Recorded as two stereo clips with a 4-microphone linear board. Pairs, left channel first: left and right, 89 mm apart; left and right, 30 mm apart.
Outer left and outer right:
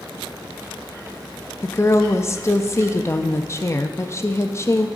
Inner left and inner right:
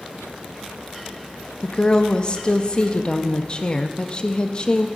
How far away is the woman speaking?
About 0.5 m.